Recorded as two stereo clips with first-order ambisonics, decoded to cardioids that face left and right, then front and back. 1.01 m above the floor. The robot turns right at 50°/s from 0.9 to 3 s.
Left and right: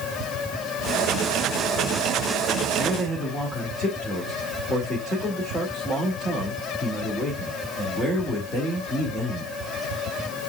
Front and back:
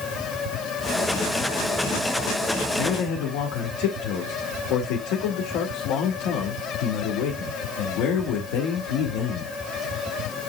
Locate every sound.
2.8 s a man speaking: 5° right, 2 m; by 9.5 s 10° left, 2 m